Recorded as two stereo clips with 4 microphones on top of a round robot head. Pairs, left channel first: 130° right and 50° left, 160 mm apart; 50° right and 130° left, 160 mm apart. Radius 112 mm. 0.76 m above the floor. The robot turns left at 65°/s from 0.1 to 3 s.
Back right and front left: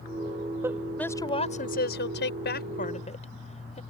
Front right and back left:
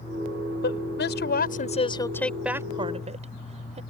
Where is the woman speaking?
25° right; by 3.8 s straight behind.